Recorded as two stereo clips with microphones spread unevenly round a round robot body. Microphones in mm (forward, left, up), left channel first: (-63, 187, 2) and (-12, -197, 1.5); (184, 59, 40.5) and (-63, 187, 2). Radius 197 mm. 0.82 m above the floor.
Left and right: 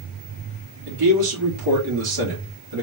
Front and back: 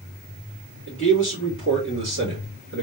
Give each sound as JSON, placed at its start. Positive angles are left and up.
{"t": 0.9, "sound": "a man speaking", "azimuth_deg": -85, "distance_m": 1.8}